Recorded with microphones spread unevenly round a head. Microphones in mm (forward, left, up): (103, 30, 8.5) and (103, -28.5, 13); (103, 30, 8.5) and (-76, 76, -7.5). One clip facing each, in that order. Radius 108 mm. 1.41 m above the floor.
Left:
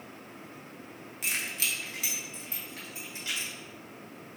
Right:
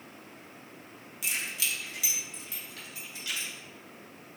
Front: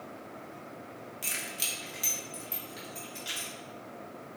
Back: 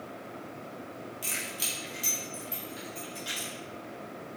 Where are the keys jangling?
50° left, 1.5 m; by 3.5 s 40° left, 4 m.